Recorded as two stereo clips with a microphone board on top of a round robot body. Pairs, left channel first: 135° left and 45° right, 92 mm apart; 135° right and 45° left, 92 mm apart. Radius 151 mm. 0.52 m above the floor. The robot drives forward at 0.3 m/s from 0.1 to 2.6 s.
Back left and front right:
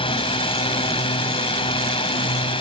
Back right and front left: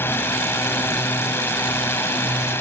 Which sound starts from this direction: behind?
A drone, at 0.0 s.